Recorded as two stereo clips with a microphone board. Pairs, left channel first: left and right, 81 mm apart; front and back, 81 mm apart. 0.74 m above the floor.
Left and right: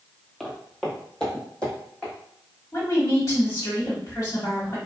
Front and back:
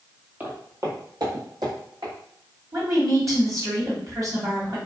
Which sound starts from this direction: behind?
Footsteps, at 0.4 s.